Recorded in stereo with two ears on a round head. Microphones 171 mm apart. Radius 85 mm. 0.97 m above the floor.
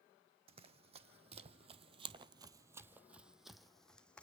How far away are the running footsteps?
About 1.8 m.